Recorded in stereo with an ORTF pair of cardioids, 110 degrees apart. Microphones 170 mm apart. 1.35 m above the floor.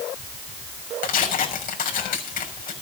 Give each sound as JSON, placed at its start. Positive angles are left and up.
{"t": 1.0, "sound": "tearing paper", "azimuth_deg": 55, "distance_m": 6.5}